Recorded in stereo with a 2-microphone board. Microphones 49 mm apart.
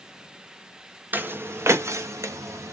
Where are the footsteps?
40° right (ahead or behind), 1.1 m; by 2.7 s 85° right, 1.9 m.